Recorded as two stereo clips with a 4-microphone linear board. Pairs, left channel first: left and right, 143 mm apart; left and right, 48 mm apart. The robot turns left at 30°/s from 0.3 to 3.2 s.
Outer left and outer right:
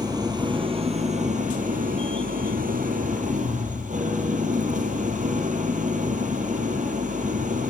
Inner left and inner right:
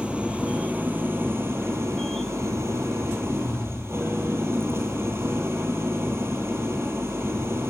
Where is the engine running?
30° right, 2.5 m; by 7.7 s 115° right, 2.5 m.